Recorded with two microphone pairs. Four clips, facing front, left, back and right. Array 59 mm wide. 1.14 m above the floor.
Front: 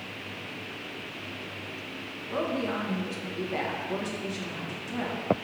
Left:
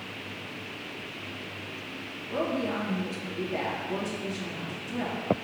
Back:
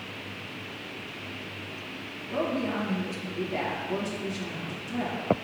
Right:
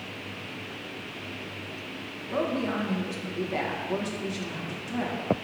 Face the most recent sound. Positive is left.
turn(degrees=-65)